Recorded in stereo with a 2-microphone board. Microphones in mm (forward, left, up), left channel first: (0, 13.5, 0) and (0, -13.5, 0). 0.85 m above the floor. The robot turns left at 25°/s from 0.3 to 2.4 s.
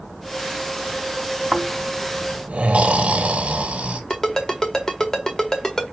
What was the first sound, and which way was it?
Snoring, 45° right (ahead or behind).